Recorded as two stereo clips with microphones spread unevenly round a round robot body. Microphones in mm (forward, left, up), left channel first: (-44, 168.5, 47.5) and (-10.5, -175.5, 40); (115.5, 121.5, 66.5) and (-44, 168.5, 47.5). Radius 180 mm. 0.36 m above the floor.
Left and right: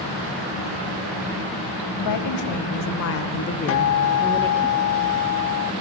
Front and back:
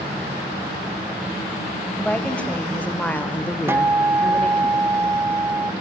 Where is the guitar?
105° left, 1.0 m.